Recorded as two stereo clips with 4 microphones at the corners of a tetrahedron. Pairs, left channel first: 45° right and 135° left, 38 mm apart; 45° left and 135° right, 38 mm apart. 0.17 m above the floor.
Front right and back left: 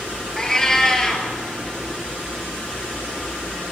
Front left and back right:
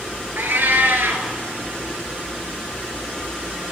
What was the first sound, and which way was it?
A cat meowing, 120° right.